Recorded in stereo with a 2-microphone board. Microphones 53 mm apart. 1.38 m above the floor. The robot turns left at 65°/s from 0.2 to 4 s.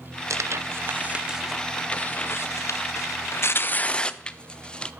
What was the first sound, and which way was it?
Tearing paper, 75° right (ahead or behind).